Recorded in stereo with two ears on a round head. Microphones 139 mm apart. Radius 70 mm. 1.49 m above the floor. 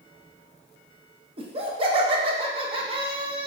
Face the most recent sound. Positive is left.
turn(degrees=-40)  # may be behind; listen again after turning